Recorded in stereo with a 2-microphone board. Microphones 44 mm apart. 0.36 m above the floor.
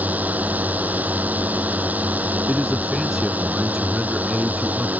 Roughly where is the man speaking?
Centre.